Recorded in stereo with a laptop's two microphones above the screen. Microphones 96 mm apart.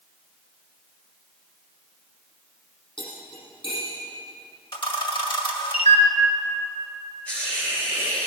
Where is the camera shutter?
60° left (ahead or behind), 1.9 m.